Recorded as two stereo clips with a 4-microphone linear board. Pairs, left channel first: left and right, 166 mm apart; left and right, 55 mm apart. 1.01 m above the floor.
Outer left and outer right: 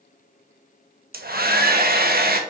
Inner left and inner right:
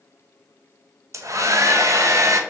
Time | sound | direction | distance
1.1 | a hair dryer | 65° right (ahead or behind) | 0.8 m